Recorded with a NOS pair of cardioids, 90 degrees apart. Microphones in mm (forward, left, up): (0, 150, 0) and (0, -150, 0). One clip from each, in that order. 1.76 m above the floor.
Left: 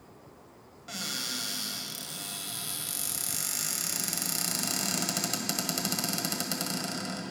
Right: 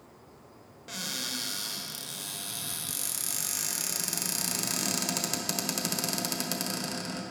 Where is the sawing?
No sawing in this recording.